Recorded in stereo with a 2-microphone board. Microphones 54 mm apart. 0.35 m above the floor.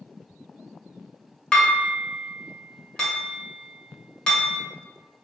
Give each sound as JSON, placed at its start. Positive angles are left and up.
{"t": 1.5, "sound": "dishes clattering", "side_deg": 20, "distance_m": 1.0}